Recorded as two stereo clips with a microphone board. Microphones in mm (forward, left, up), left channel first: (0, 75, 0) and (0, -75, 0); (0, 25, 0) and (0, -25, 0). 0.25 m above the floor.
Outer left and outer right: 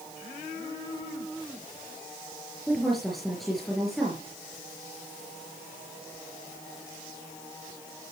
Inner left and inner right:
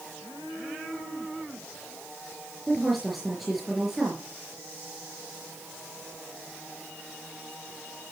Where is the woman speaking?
Centre (ahead or behind), 4.5 m.